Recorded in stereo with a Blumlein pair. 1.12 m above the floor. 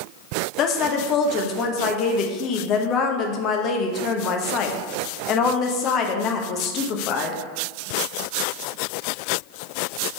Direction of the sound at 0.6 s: 35° left.